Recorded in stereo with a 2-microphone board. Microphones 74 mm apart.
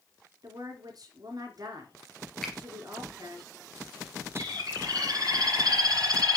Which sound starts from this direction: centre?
A finger snap, at 2.4 s.